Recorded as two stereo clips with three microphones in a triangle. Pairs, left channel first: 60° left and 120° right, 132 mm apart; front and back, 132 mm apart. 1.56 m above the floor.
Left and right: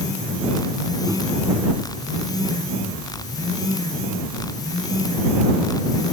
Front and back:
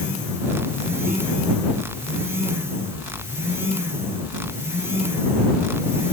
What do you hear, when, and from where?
1.1 s a microwave: 175° left